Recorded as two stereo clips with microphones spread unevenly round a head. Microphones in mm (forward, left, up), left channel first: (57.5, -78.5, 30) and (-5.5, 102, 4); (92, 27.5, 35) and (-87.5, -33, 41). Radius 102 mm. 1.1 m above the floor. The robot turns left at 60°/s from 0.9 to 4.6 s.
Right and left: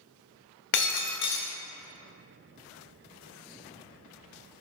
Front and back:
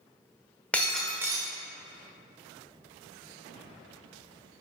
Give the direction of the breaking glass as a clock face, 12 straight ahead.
2 o'clock.